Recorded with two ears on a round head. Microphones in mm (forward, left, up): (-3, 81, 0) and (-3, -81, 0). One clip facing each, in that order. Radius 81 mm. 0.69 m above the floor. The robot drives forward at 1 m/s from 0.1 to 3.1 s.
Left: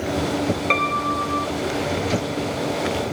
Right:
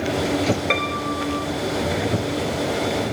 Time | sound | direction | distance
0.7 | a piano | 10° right (ahead or behind) | ?